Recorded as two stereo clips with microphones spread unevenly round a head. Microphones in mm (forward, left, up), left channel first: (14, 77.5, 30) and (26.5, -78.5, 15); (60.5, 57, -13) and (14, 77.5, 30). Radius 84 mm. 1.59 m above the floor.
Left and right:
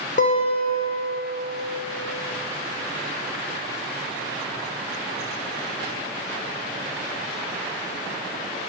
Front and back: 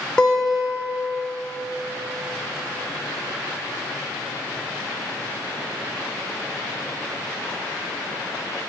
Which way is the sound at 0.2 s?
60° left.